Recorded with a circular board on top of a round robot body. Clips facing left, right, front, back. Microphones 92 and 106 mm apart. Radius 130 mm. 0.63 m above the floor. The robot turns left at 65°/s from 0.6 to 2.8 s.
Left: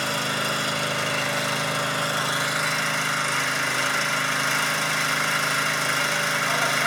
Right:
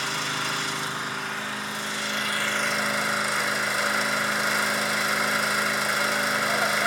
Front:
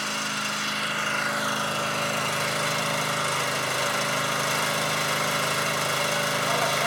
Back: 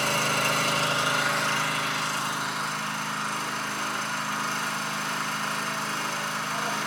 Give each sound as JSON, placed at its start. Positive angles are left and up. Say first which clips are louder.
{"t": 0.0, "sound": "an engine running", "louder": "left 3 dB, back 5 dB", "azimuth_deg": 135, "distance_m": 2.5}